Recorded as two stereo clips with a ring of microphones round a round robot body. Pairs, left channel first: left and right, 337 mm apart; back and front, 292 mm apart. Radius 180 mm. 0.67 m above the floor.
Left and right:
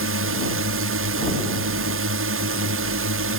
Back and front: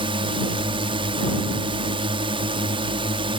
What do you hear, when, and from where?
0.0 s a drone: 65° right